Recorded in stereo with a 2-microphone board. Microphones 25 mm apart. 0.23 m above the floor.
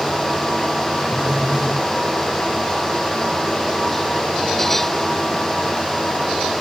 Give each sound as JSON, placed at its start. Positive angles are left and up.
{"t": 1.1, "sound": "a phone buzzing", "side_deg": -65, "distance_m": 7.5}